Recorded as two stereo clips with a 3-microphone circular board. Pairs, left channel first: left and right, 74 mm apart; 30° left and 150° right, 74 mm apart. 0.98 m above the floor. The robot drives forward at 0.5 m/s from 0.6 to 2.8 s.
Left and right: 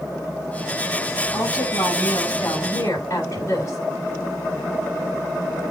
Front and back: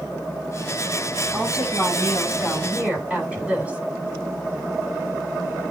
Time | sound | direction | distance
1.3 | a woman speaking | 135° left | 10 m